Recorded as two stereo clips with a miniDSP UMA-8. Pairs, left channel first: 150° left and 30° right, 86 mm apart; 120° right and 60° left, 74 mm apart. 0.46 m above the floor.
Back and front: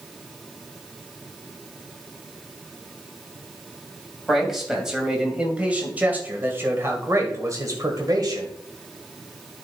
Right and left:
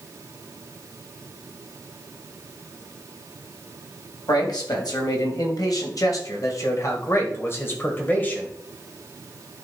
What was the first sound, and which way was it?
A man speaking, 120° right.